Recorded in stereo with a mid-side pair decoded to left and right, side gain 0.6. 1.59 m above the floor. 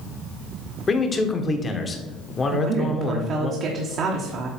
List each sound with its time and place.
0.9 s a man speaking: 25° left, 1.1 m
2.5 s a woman speaking: 50° right, 1.1 m